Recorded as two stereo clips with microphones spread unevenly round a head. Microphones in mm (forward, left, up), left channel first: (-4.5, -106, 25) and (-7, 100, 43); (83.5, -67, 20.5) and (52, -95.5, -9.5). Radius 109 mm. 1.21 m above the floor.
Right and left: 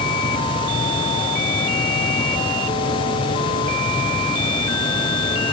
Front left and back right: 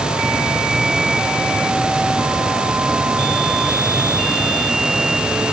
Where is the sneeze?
No sneeze in this recording.